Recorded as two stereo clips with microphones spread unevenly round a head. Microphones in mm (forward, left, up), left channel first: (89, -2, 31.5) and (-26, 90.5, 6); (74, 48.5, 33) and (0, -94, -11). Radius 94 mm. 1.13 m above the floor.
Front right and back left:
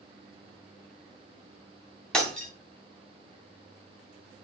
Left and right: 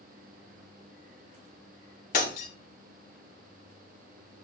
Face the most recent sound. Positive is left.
turn(degrees=45)